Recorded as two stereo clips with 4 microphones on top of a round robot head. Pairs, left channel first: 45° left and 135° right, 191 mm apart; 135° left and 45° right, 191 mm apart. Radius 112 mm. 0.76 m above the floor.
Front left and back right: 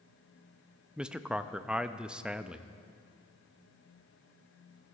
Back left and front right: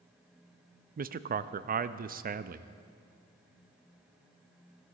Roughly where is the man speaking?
Ahead right.